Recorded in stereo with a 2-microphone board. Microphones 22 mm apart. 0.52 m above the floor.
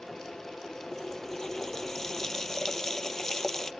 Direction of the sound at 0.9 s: 20° left (ahead or behind).